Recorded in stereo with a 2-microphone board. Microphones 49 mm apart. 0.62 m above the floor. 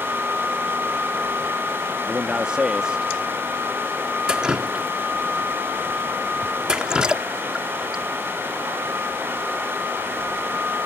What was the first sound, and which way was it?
A man speaking, 15° right (ahead or behind).